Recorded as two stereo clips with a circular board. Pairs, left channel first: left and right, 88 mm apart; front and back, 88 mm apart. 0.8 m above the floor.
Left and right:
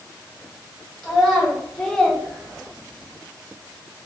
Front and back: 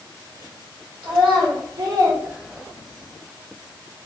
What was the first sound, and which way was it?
A child speaking, straight behind.